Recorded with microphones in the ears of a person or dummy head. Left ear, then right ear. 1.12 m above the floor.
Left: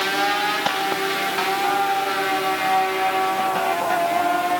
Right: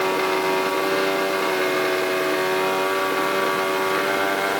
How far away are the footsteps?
I don't hear footsteps.